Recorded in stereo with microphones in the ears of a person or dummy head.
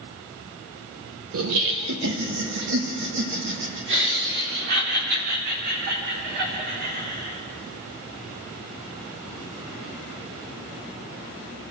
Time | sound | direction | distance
1.3 | laughter | 70° right (ahead or behind) | 1.1 m